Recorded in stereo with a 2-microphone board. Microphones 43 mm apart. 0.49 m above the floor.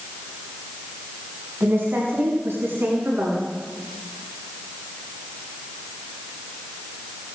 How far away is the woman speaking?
About 4.5 m.